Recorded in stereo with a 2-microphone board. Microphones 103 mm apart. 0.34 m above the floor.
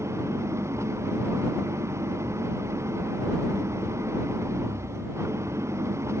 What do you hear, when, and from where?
0.0 s an engine running: 25° right (ahead or behind)